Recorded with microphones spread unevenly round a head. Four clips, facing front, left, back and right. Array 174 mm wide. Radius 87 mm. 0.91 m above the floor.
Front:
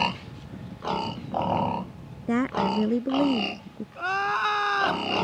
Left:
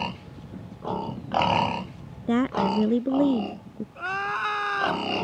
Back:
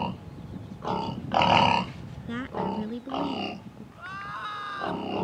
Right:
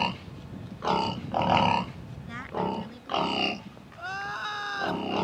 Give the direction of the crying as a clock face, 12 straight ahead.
11 o'clock.